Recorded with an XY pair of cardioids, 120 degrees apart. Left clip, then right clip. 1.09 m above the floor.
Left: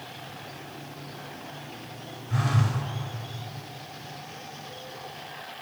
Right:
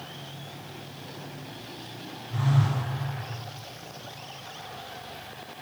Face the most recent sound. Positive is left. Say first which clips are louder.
# left 1 dB
turn(degrees=70)